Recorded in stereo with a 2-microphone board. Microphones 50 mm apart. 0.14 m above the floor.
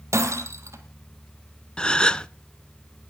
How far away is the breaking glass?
About 2.5 m.